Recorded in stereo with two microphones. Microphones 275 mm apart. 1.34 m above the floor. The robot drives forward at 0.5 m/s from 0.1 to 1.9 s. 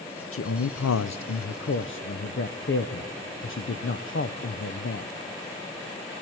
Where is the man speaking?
50° left (ahead or behind), 0.6 m; by 5.1 s 45° left (ahead or behind), 0.7 m.